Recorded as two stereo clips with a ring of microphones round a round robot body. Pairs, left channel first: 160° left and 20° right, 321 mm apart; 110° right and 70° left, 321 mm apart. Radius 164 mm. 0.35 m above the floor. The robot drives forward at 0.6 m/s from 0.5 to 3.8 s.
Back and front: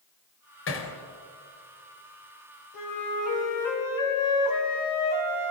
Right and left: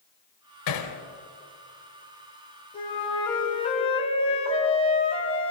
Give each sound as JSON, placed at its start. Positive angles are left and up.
{"t": 0.7, "sound": "hammering", "azimuth_deg": -150, "distance_m": 2.5}
{"t": 2.7, "sound": "a flute", "azimuth_deg": 175, "distance_m": 3.0}